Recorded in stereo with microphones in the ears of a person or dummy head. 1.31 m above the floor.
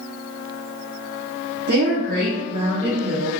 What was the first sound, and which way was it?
A woman speaking, 55° right (ahead or behind).